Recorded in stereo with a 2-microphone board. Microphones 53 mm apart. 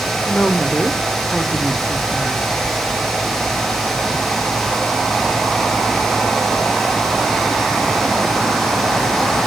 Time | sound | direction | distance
0.3 | a woman speaking | 15° left (ahead or behind) | 1.2 m